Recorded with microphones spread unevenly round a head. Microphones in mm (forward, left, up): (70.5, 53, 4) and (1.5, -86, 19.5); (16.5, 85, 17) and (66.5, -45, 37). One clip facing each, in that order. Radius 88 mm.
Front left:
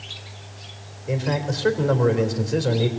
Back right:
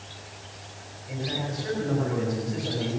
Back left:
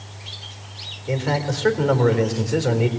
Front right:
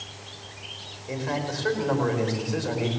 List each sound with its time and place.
1.1 s a man speaking: 90° left, 3.5 m